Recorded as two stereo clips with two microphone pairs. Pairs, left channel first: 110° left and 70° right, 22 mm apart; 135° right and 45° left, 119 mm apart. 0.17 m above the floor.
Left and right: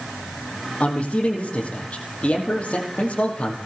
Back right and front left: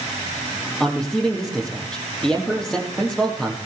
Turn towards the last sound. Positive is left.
turn(degrees=140)